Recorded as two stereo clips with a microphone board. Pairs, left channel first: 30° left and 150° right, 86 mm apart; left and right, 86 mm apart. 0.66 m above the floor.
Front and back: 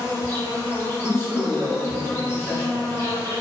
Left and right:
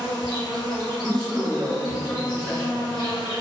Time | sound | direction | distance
0.0 | an insect | 85° left | 1.1 m
1.0 | a man speaking | 15° left | 1.0 m